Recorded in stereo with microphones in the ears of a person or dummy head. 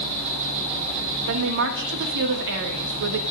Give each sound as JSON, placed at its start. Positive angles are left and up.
{"t": 0.0, "sound": "an insect", "side_deg": -55, "distance_m": 3.5}
{"t": 1.3, "sound": "a woman speaking", "side_deg": -60, "distance_m": 1.2}